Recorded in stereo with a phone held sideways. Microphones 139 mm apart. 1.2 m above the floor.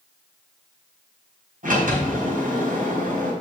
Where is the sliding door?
80° right, 4.5 m.